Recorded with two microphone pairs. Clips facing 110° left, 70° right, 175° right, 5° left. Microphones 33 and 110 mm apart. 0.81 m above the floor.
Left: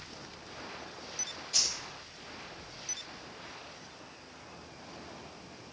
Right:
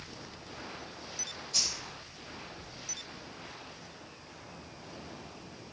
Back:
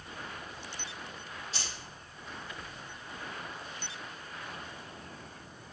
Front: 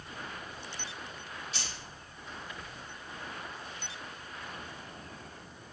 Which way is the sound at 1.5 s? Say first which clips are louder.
Left 1 dB, even; 135° left.